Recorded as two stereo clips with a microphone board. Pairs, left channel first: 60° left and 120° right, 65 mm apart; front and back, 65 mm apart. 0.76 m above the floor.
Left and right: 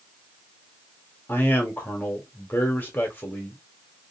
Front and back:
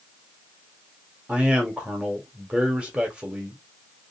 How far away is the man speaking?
About 1.2 m.